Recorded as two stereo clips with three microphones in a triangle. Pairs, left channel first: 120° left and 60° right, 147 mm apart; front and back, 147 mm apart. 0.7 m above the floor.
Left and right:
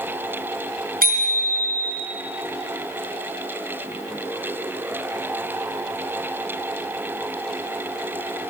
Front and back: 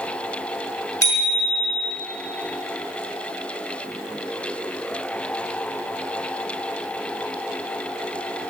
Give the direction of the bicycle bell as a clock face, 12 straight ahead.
2 o'clock.